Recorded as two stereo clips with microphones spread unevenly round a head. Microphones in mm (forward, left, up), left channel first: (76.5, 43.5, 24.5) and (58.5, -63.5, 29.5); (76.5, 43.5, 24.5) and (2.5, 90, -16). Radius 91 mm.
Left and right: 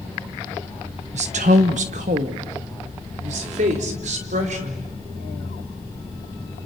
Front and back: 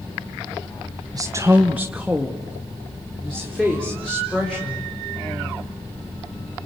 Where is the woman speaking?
135° right, 1.1 m; by 5.0 s 115° right, 6 m.